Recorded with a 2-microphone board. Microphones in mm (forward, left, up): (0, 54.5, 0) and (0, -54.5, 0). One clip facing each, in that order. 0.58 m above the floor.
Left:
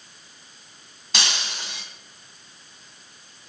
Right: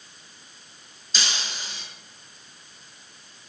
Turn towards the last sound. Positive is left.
turn(degrees=80)